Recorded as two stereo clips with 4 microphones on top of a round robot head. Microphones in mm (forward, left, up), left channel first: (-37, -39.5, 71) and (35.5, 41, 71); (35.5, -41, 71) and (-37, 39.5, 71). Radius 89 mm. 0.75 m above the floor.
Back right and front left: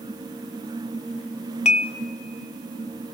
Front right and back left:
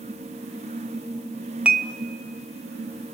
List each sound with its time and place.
1.6 s dishes clattering: 150° right, 0.8 m